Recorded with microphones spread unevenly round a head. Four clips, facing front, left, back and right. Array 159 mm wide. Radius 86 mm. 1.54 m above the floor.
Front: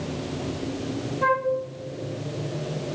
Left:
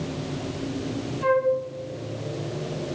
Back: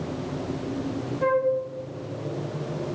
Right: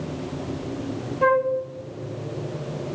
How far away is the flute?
About 0.9 m.